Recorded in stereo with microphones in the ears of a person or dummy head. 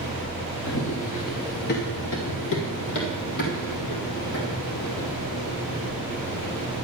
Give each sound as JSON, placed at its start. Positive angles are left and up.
{"t": 0.7, "sound": "running footsteps", "side_deg": 30, "distance_m": 1.6}